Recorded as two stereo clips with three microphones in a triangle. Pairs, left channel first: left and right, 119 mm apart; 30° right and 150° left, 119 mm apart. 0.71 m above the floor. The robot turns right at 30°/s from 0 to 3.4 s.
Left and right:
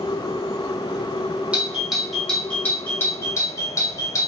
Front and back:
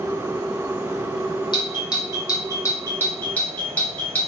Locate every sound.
1.5 s a doorbell: 15° right, 1.4 m; by 4.3 s 40° left, 1.4 m